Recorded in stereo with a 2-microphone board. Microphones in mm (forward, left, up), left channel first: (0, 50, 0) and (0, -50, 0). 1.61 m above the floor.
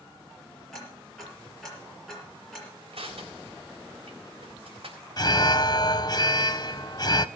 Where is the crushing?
70° right (ahead or behind), 3.5 m.